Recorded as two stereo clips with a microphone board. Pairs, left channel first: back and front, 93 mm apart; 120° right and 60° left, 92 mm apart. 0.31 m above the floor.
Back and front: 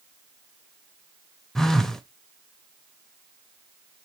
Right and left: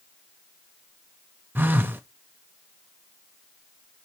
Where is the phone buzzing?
100° left, 0.8 m.